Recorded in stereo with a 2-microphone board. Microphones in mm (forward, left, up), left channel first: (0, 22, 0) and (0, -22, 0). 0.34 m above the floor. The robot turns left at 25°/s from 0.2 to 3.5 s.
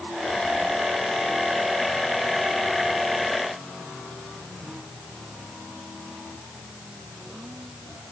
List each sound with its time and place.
Only background noise.